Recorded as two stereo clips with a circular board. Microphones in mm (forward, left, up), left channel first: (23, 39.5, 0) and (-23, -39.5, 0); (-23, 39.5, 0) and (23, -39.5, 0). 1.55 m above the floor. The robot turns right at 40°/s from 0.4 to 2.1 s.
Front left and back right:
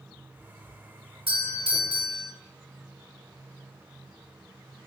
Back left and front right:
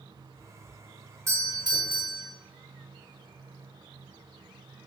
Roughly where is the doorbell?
Behind right.